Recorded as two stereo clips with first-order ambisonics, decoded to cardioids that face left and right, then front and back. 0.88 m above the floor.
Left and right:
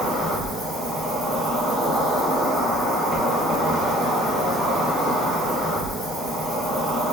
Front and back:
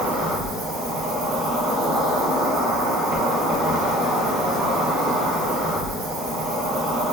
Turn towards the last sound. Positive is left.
turn(degrees=-175)